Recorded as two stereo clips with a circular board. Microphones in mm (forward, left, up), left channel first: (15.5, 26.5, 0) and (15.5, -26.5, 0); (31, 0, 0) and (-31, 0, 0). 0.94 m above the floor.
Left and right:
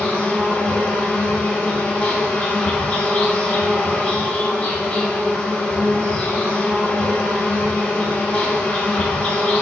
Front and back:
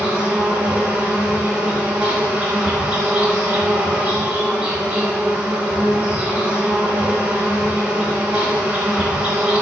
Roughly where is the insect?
Behind left.